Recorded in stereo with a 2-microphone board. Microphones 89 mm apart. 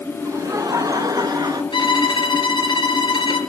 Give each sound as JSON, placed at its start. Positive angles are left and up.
{"t": 0.2, "sound": "laughter", "side_deg": -35, "distance_m": 1.7}
{"t": 1.7, "sound": "a violin", "side_deg": 60, "distance_m": 2.0}